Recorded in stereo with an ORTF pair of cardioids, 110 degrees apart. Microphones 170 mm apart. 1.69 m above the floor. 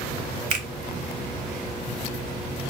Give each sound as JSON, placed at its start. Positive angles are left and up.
{"t": 0.5, "sound": "a finger snap", "azimuth_deg": -50, "distance_m": 0.9}